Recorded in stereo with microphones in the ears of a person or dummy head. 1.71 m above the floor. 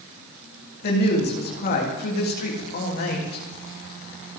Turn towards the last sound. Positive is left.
turn(degrees=45)  # may be behind; listen again after turning